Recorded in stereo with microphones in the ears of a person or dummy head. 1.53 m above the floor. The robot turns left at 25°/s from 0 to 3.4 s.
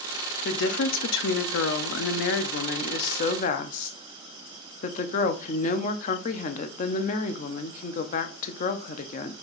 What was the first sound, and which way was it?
A woman speaking, 115° left.